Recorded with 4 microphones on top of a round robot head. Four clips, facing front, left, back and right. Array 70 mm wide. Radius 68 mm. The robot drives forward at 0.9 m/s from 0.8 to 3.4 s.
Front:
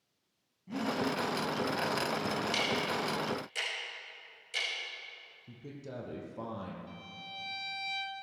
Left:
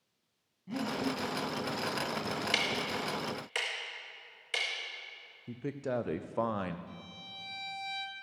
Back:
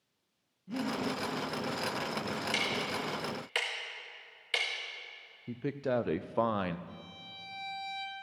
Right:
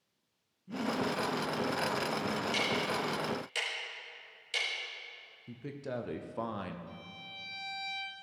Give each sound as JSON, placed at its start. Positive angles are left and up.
{"t": 0.7, "sound": "breathing", "azimuth_deg": 65, "distance_m": 4.5}
{"t": 2.5, "sound": "ticking", "azimuth_deg": 105, "distance_m": 1.0}
{"t": 5.5, "sound": "a man speaking", "azimuth_deg": 155, "distance_m": 0.5}
{"t": 6.9, "sound": "a violin", "azimuth_deg": 25, "distance_m": 1.5}